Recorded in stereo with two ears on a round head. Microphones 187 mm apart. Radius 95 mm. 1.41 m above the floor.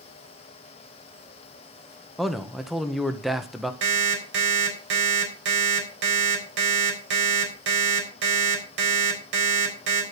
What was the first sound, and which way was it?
A man speaking, centre (ahead or behind).